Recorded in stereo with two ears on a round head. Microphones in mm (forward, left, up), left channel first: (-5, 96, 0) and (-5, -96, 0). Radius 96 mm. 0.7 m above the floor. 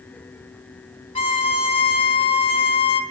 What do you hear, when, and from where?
1.1 s a violin: 25° left (ahead or behind), 0.7 m